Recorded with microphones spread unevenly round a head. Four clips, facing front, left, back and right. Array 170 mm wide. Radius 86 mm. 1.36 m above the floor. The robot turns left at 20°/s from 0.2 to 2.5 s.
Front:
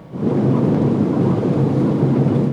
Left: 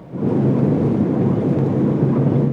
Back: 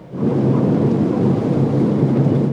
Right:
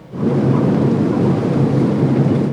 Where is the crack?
No crack in this recording.